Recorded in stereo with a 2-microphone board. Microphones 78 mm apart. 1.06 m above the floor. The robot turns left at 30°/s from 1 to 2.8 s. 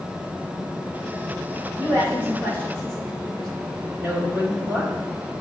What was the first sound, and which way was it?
A woman speaking, 40° left (ahead or behind).